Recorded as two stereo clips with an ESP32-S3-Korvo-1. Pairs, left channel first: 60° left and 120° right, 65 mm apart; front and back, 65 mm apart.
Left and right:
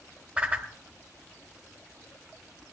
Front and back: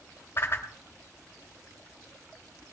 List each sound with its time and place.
0.4 s a whoosh: 55° right, 1.4 m